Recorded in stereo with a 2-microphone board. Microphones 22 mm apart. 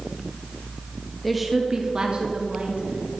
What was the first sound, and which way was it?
A woman speaking, 5° left (ahead or behind).